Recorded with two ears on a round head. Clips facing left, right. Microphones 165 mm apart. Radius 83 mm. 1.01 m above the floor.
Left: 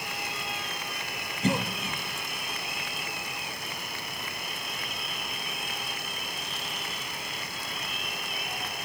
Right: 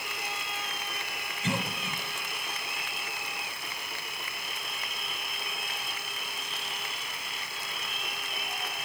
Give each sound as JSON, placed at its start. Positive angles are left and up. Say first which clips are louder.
{"t": 1.4, "sound": "a cough", "louder": "left 5 dB", "side_deg": 30, "distance_m": 1.1}